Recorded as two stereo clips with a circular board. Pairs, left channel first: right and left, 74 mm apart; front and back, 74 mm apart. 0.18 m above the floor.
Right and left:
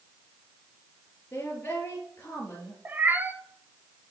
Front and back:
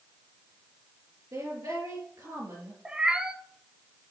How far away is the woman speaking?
About 3 m.